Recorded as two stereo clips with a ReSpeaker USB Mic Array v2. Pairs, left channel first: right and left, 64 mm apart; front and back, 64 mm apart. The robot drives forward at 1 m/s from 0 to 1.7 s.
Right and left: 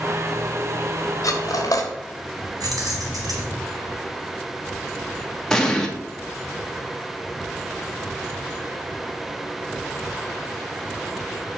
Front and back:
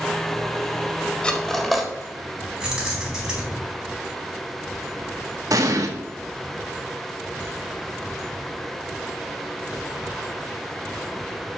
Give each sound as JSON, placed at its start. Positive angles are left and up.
{"t": 1.2, "sound": "cutlery clinking", "azimuth_deg": -70, "distance_m": 1.6}
{"t": 2.6, "sound": "keys jangling", "azimuth_deg": 100, "distance_m": 4.5}
{"t": 5.5, "sound": "an explosion", "azimuth_deg": -170, "distance_m": 1.4}